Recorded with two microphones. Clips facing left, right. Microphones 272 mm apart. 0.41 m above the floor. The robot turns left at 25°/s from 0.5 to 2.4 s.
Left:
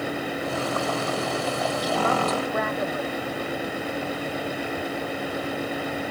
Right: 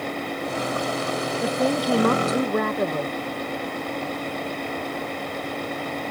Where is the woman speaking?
75° right (ahead or behind); by 3.1 s 50° right (ahead or behind).